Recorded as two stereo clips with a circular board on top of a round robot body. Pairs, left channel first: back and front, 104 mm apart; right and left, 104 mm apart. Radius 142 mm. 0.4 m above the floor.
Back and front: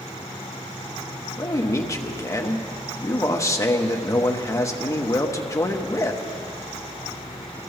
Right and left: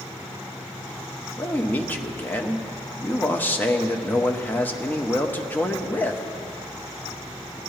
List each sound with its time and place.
1.4 s a man speaking: 150° right, 1.2 m